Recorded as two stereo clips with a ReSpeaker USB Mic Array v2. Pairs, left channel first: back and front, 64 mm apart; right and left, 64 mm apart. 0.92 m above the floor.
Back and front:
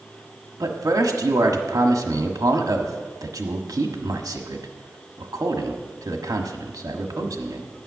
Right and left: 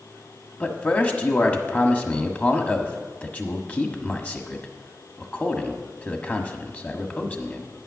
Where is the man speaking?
25° right, 1.4 m.